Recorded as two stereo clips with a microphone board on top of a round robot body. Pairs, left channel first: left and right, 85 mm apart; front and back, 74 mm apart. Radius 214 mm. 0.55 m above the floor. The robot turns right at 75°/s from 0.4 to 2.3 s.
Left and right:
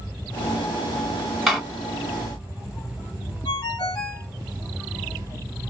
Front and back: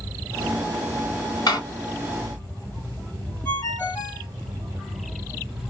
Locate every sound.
1.5 s a door slam: straight ahead, 1.5 m; by 1.6 s 10° left, 1.5 m
3.5 s a ringtone: 55° left, 1.5 m